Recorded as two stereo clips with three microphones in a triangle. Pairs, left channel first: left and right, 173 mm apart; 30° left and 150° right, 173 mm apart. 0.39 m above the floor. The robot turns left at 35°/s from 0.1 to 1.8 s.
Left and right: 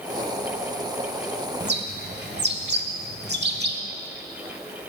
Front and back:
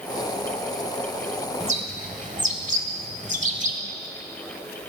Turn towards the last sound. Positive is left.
turn(degrees=-105)